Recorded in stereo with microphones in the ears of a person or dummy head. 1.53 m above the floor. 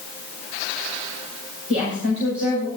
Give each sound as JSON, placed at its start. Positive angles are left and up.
{"t": 1.7, "sound": "a woman speaking", "side_deg": -80, "distance_m": 6.0}